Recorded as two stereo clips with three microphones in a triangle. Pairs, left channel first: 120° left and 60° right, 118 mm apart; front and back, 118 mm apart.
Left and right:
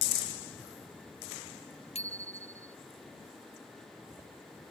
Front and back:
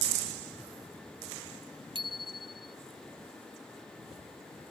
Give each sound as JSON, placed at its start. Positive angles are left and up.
{"t": 1.9, "sound": "a bicycle bell", "azimuth_deg": 135}